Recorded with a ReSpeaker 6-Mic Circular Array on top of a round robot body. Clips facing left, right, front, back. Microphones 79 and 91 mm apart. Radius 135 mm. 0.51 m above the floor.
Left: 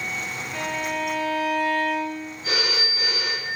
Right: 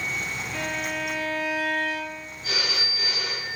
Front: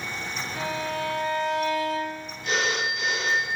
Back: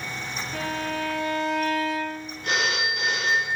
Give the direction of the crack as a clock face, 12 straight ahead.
No crack in this recording.